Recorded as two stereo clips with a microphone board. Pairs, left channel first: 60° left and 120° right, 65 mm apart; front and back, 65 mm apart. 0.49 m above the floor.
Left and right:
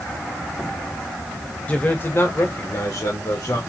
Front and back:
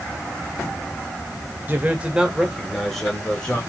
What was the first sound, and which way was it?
A man speaking, 125° left.